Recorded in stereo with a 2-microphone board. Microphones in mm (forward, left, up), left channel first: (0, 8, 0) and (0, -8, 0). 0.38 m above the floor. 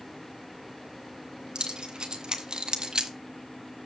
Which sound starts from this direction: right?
Keys jangling, at 1.6 s.